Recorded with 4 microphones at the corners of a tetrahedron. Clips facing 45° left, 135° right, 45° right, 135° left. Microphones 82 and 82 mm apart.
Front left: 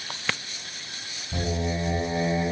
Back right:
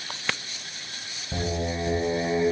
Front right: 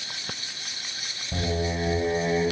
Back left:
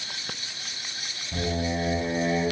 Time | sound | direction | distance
1.3 | singing | 105° right | 5.5 m